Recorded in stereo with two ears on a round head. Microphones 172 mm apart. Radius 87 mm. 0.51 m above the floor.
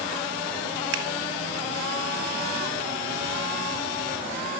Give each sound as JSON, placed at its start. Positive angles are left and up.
{"t": 0.9, "sound": "scissors", "side_deg": -85, "distance_m": 4.0}